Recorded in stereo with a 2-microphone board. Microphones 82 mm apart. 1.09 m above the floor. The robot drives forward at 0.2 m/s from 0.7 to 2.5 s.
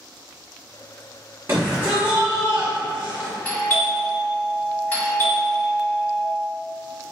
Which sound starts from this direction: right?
A shout, at 1.5 s.